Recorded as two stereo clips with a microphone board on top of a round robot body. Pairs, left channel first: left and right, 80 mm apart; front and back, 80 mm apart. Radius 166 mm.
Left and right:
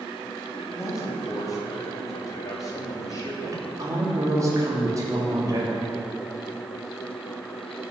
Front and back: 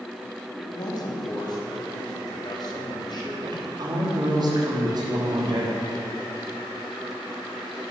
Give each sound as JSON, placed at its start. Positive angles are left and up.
{"t": 0.6, "sound": "a man speaking", "azimuth_deg": 40, "distance_m": 3.0}
{"t": 3.4, "sound": "a woman speaking", "azimuth_deg": -140, "distance_m": 3.5}